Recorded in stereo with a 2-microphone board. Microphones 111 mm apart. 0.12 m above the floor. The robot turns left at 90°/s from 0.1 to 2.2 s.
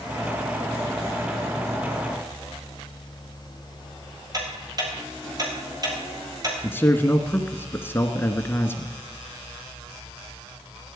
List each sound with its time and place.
4.3 s ticking: 35° right (ahead or behind), 5.5 m
6.6 s a man speaking: 20° left (ahead or behind), 1.2 m